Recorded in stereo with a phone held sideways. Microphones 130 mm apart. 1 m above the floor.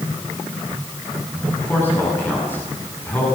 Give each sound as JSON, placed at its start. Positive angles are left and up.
{"t": 1.4, "sound": "a man speaking", "side_deg": 15, "distance_m": 9.0}